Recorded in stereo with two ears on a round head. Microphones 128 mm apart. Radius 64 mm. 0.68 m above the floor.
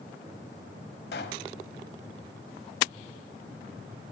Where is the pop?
80° left, 1.4 m.